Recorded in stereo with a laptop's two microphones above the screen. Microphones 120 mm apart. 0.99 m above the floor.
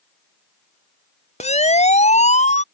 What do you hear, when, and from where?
1.4 s a siren: 60° left (ahead or behind); by 2.6 s 65° left (ahead or behind)